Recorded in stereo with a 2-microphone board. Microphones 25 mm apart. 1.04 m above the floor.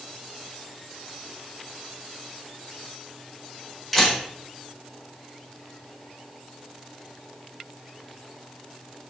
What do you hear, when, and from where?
3.9 s a camera shutter: 5° left (ahead or behind), 4.5 m